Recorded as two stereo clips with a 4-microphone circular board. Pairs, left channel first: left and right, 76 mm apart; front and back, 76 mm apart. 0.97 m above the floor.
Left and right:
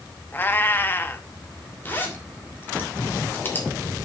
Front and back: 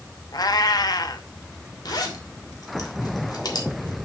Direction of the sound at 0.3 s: 30° left.